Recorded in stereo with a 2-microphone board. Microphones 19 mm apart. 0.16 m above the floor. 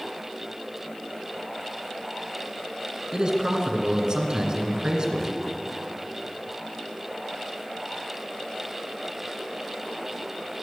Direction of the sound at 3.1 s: 45° right (ahead or behind).